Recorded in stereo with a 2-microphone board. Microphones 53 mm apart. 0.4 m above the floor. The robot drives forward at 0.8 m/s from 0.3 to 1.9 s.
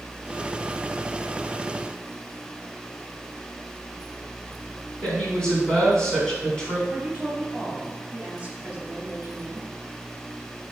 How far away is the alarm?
No alarm in this recording.